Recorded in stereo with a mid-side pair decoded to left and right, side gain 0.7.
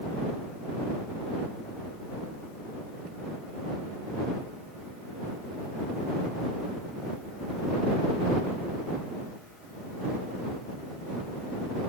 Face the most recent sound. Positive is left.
No sound to turn to.